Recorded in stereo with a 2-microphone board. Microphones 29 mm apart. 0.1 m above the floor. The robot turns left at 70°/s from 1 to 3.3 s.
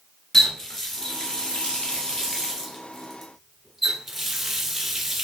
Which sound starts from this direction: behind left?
A running tap, at 0.3 s.